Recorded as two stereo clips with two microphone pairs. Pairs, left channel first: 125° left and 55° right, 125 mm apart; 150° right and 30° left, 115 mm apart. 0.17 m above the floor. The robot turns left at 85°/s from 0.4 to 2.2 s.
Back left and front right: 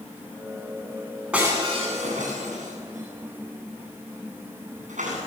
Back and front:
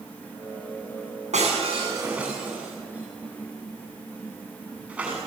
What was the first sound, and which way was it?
Breaking glass, 25° left.